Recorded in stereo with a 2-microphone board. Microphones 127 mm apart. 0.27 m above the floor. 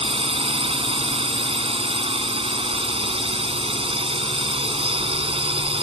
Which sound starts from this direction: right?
A drone, at 0.0 s.